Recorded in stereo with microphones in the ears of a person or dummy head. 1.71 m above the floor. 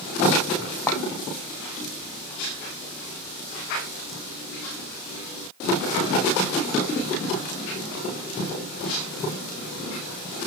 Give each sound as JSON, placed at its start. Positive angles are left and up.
{"t": 0.9, "sound": "a clink", "side_deg": 15, "distance_m": 0.9}